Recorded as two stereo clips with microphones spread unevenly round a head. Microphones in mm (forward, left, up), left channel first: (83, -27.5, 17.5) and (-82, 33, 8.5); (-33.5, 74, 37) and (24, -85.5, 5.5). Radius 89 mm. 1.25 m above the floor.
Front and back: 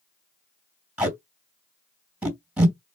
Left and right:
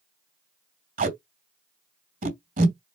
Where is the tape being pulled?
115° right, 2.5 m.